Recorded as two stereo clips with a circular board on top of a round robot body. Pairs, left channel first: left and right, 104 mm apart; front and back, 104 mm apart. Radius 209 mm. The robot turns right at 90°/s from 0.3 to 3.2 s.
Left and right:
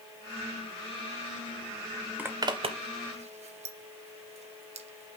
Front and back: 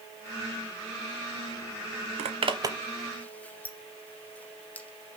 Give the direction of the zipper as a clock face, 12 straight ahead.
6 o'clock.